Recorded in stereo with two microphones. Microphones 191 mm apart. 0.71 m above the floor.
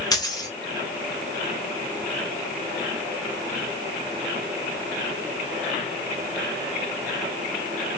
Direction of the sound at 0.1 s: 20° left (ahead or behind).